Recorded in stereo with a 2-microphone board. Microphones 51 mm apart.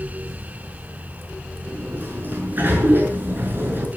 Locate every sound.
1.7 s a sliding door: 40° right (ahead or behind), 6.5 m